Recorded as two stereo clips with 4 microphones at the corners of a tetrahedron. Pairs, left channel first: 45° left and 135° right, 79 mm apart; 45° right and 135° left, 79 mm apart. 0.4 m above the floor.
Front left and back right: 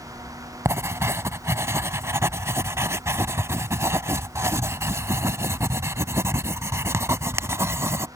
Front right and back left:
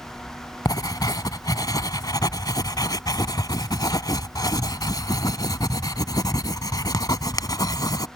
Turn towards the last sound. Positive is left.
turn(degrees=-80)